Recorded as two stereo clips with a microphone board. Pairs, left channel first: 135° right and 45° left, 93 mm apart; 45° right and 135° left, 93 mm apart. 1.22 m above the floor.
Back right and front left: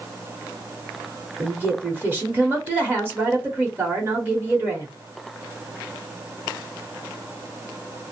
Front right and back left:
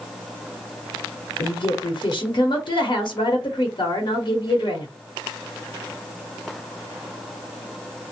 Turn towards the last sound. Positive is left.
turn(degrees=-20)